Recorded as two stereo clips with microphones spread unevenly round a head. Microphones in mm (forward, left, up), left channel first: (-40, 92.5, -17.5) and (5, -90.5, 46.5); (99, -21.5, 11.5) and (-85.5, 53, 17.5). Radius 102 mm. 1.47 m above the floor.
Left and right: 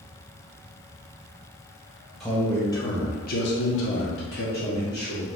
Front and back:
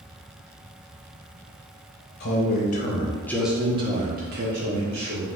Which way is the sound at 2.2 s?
15° left.